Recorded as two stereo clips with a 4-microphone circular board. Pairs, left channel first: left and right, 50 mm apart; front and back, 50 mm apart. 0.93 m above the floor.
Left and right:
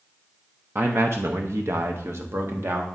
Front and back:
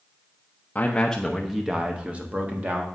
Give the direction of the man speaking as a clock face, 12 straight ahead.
2 o'clock.